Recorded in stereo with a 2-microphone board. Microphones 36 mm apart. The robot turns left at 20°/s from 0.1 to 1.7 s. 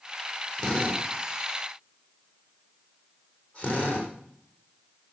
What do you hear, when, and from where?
0.6 s a drill: 10° left (ahead or behind), 5 m; by 4.1 s 35° left (ahead or behind), 5 m